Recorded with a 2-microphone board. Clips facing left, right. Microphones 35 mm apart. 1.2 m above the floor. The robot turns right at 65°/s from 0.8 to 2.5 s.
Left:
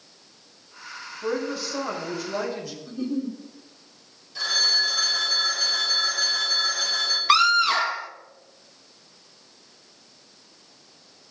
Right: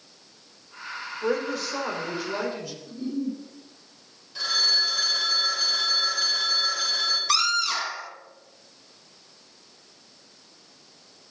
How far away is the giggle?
About 3 m.